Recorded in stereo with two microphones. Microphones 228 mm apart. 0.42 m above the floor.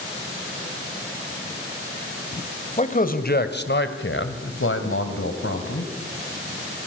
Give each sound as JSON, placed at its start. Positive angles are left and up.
{"t": 2.8, "sound": "a man speaking", "side_deg": 30, "distance_m": 2.0}